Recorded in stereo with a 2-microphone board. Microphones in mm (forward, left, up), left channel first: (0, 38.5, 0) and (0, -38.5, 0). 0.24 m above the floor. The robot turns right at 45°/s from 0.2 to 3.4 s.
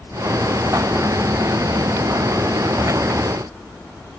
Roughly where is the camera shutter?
No camera shutter in this recording.